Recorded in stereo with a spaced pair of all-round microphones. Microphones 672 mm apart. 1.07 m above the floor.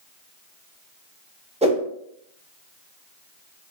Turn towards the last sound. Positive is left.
turn(degrees=-10)  # may be behind; listen again after turning